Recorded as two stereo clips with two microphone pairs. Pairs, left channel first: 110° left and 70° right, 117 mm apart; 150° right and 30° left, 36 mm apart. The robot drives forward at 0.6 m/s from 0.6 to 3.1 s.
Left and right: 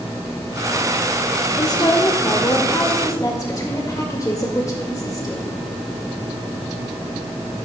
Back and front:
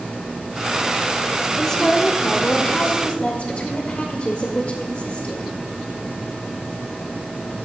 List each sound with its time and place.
1.6 s a woman speaking: 140° left, 1.0 m; by 5.5 s 165° left, 1.7 m